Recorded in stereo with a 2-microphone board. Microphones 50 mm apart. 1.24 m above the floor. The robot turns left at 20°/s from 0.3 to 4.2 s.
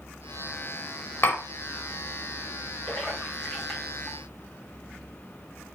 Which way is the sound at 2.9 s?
15° left (ahead or behind).